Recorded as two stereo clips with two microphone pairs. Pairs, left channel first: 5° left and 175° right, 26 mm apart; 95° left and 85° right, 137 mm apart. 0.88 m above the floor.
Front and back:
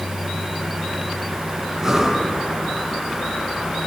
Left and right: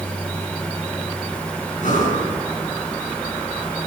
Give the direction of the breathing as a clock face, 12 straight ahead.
8 o'clock.